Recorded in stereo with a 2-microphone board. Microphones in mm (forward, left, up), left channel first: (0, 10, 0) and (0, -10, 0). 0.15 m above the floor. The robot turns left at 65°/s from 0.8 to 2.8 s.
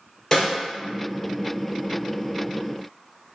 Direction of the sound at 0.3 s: 10° left (ahead or behind).